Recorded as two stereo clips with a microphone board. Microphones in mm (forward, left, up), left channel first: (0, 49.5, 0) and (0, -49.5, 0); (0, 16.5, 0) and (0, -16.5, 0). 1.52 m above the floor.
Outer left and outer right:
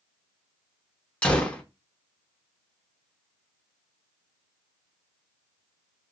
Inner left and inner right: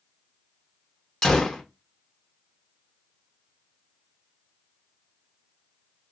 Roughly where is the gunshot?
Centre.